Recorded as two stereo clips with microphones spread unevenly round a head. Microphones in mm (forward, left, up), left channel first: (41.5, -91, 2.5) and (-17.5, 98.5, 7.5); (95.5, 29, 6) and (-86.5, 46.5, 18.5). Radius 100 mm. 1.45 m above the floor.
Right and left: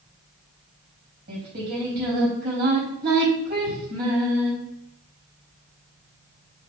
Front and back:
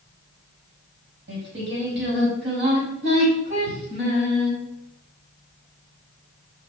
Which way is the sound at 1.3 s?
150° left.